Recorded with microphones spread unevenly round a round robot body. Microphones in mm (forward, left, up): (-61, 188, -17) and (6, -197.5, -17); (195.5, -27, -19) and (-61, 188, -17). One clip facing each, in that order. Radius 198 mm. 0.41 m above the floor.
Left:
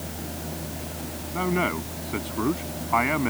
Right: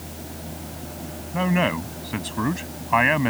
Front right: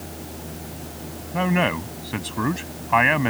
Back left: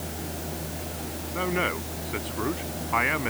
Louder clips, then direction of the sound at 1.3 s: Right 3 dB, front right 6 dB; 35° right.